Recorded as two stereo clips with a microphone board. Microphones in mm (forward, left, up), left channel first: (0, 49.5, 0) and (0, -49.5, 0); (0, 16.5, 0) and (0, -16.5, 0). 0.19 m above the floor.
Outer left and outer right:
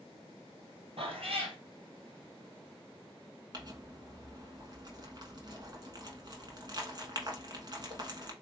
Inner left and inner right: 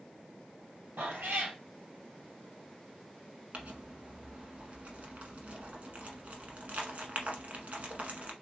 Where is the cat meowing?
75° right (ahead or behind), 1.9 m.